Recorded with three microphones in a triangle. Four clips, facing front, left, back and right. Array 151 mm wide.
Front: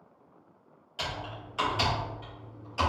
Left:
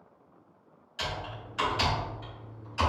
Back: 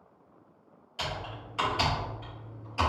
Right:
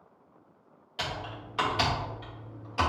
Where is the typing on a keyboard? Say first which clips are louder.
Even, even; 85° right, 1.7 m.